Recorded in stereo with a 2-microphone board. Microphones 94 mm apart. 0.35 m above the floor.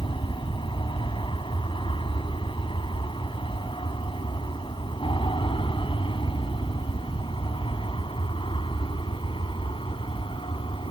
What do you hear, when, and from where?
0.0 s an aircraft: 60° left (ahead or behind); by 10.9 s 65° left (ahead or behind)